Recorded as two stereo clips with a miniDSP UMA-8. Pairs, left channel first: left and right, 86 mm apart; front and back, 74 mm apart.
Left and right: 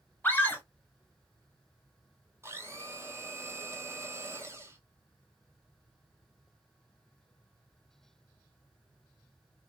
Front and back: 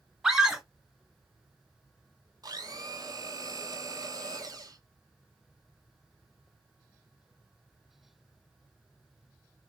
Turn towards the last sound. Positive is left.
turn(degrees=-150)